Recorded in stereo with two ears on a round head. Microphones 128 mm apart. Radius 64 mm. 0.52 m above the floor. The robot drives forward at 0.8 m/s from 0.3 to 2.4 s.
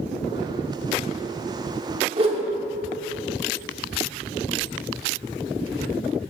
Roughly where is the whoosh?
Right.